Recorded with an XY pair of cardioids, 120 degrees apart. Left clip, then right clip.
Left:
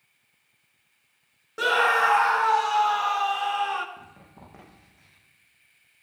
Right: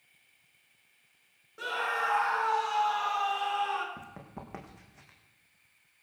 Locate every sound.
1.6 s a scream: 65° left, 0.7 m; by 3.9 s 30° left, 1.8 m
4.0 s running footsteps: 50° right, 4.5 m